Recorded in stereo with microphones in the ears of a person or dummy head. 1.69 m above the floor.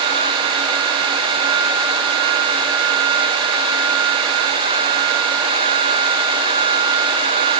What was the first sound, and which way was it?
Only background noise.